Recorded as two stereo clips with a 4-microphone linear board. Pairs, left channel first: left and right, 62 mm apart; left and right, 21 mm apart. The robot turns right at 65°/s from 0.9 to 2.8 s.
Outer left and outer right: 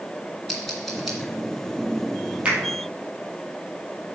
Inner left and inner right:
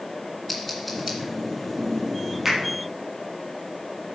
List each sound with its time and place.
0.5 s scissors: 5° left (ahead or behind), 2 m; by 1.2 s 5° right (ahead or behind), 2 m
2.5 s a finger snap: 15° right (ahead or behind), 3.5 m; by 2.6 s 25° right (ahead or behind), 3.5 m